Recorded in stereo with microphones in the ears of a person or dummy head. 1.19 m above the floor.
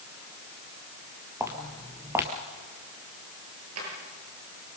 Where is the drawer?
85° right, 8.5 m.